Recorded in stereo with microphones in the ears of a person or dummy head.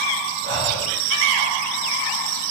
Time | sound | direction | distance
0.4 | breathing | 80° right | 1.8 m